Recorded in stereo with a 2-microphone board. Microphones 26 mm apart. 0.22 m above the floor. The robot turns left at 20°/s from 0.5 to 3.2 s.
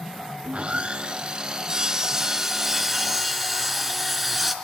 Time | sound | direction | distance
0.4 | sawing | 120° right | 1.0 m